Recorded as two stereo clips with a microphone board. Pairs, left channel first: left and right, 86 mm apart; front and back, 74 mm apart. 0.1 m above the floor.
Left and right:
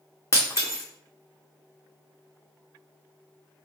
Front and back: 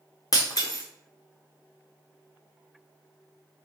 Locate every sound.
0.3 s breaking glass: 35° left, 1.1 m